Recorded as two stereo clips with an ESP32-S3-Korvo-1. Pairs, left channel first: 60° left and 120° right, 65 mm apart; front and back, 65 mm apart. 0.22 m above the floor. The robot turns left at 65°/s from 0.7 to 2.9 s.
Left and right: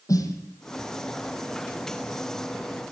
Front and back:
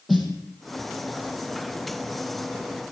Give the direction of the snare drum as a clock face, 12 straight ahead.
9 o'clock.